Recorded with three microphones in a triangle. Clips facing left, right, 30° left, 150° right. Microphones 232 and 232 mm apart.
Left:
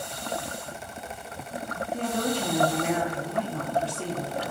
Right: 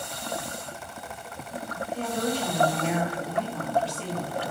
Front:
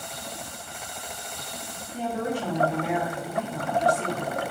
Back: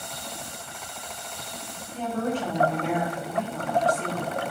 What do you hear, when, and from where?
1.9 s a woman speaking: 105° left, 0.6 m